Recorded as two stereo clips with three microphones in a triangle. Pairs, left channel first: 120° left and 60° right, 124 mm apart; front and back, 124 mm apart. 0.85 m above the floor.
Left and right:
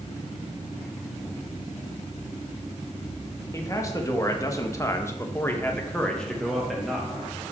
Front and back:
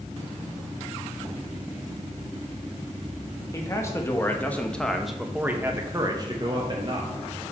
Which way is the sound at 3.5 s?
60° left.